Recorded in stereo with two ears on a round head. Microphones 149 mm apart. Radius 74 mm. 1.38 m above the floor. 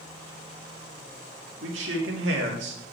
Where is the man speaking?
85° right, 2.5 m; by 2.8 s 75° right (ahead or behind), 2 m.